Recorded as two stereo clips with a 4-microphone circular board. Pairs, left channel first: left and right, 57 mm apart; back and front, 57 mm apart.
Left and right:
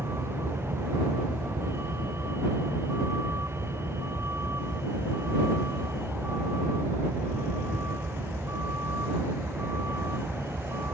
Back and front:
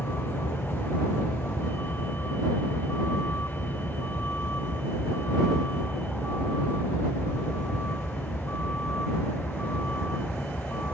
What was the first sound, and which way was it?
A vehicle, 130° right.